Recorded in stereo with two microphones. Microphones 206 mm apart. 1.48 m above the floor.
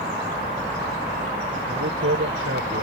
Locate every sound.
1.6 s a man speaking: 90° right